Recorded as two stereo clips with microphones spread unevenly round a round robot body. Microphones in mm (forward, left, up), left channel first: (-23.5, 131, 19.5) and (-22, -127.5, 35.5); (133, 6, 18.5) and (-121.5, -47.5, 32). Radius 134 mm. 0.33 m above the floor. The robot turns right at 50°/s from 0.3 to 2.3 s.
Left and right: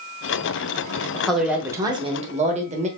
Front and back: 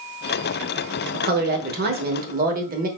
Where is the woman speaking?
165° left, 1.0 m; by 2.9 s 140° right, 1.0 m.